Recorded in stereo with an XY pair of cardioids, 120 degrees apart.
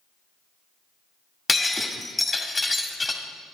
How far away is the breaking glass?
About 1.6 m.